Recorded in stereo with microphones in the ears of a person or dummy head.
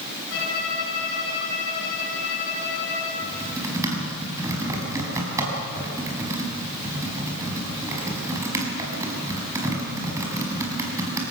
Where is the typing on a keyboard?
15° right (ahead or behind), 5.5 m.